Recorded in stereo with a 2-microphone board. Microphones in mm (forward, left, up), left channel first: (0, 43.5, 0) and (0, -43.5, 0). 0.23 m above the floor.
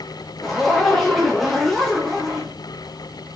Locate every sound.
0.4 s a zipper: 5° left (ahead or behind), 2.5 m